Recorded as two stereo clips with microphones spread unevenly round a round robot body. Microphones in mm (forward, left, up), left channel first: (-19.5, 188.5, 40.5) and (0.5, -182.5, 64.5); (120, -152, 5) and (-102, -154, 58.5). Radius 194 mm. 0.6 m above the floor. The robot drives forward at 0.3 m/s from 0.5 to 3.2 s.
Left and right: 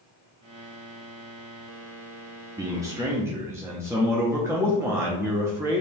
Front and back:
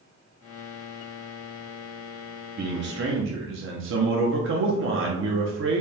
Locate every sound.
2.6 s a man speaking: 165° right, 0.6 m; by 5.8 s 170° right, 0.7 m